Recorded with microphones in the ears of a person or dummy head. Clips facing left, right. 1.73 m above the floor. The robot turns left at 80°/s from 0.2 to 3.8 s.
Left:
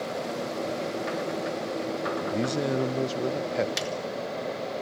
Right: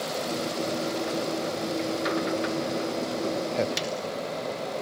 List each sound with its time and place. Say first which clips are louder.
2.3 s a man speaking: left 1 dB; 110° left, 0.7 m; by 3.7 s straight ahead, 0.7 m
3.8 s a snare drum: even; centre (ahead or behind), 1.4 m; by 3.9 s 5° left (ahead or behind), 1.4 m